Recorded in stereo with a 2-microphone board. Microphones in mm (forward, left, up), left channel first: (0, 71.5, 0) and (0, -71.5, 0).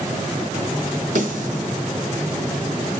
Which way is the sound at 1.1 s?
65° right (ahead or behind).